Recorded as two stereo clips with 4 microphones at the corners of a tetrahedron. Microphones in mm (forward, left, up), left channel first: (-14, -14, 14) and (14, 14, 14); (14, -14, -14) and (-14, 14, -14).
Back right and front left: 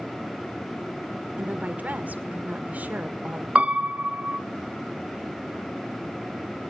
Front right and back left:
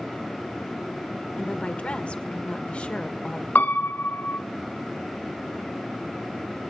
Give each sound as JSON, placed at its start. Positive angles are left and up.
{"t": 1.4, "sound": "a woman speaking", "azimuth_deg": 10, "distance_m": 1.8}
{"t": 3.5, "sound": "a piano", "azimuth_deg": -10, "distance_m": 0.9}